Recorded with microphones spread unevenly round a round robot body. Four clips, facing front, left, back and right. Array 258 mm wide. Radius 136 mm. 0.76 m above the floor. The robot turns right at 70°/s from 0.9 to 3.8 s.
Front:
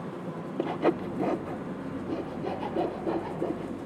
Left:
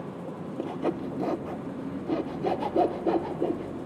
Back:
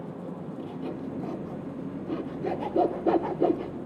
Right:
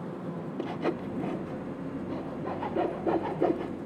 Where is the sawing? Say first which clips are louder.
Left 2 dB, front 11 dB; 10° left, 0.5 m; by 3.8 s 150° right, 0.5 m.